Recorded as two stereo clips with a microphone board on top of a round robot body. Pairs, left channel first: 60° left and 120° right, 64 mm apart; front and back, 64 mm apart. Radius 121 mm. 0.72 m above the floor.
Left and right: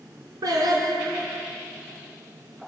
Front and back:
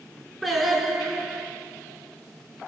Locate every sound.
0.4 s singing: 90° right, 2 m